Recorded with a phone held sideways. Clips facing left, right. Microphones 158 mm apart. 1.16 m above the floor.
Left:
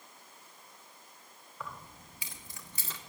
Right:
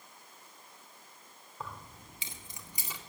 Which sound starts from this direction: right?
Keys jangling, at 1.6 s.